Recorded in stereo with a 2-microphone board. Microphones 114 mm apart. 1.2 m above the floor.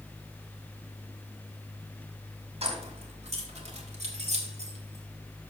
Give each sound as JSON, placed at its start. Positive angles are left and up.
{"t": 2.6, "sound": "keys jangling", "side_deg": -70, "distance_m": 2.5}